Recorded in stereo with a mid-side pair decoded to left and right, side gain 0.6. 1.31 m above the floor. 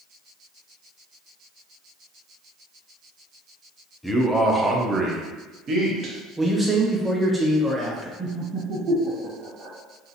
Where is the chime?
No chime in this recording.